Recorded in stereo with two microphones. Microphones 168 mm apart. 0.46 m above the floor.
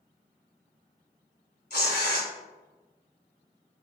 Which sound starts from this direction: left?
Tearing paper, at 1.7 s.